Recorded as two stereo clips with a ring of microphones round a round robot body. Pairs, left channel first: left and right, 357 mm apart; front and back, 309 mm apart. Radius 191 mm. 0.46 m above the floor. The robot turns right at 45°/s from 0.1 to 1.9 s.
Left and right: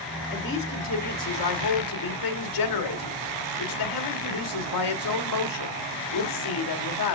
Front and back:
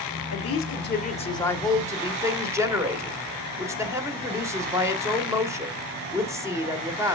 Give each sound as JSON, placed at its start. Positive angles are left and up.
{"t": 0.3, "sound": "a woman speaking", "azimuth_deg": 30, "distance_m": 1.7}